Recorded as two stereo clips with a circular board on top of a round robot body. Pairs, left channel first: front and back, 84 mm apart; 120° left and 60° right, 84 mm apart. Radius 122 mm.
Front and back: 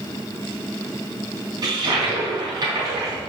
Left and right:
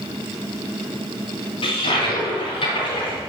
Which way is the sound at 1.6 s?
135° left.